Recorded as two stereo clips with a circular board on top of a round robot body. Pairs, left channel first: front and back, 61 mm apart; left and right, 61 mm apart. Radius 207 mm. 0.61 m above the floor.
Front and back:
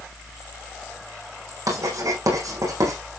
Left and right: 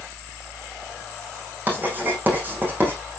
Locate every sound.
1.7 s writing: 150° right, 7 m